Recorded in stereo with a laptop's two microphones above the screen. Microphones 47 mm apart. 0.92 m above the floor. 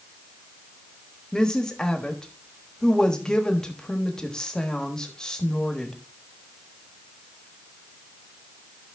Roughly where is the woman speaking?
Centre.